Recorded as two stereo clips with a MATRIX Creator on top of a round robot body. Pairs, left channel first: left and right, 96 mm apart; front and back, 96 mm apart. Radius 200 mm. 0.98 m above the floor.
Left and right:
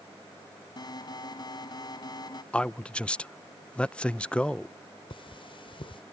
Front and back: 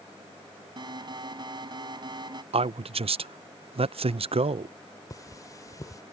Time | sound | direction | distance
0.8 | an alarm | 140° left | ?
2.5 | a man speaking | 170° left | ?
5.1 | cutlery clinking | 55° left | ?